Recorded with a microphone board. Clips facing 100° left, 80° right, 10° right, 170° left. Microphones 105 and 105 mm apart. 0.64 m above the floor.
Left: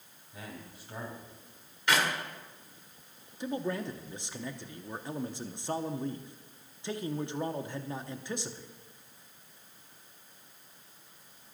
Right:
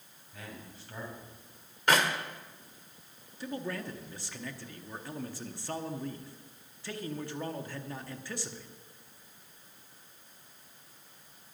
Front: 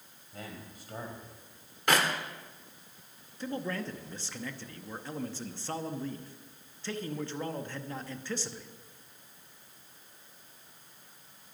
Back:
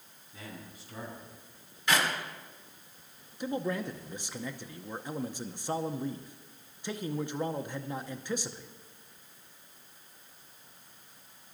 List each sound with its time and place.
0.3 s a man speaking: 25° left, 4 m
1.9 s a clap: 40° right, 1.8 m
3.4 s a man speaking: 120° left, 0.8 m